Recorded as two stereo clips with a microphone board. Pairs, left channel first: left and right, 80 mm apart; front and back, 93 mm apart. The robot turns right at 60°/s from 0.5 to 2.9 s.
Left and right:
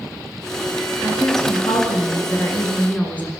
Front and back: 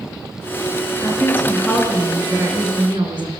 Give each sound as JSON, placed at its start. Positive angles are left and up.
{"t": 1.0, "sound": "a woman speaking", "azimuth_deg": 45, "distance_m": 4.5}